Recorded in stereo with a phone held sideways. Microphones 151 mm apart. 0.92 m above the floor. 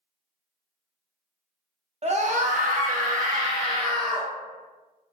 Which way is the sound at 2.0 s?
45° right (ahead or behind).